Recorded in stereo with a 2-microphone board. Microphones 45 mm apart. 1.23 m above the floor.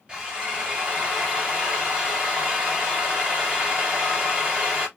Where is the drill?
25° right (ahead or behind), 3 m.